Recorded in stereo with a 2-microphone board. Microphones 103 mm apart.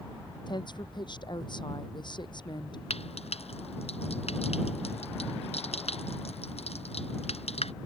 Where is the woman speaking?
50° left (ahead or behind).